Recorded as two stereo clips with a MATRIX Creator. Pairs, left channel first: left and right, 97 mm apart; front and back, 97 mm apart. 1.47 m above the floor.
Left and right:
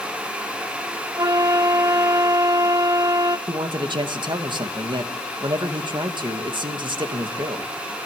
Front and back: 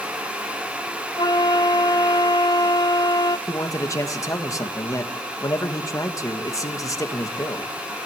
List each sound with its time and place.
1.2 s a flute: 40° right, 0.8 m
3.5 s a man speaking: 55° right, 2 m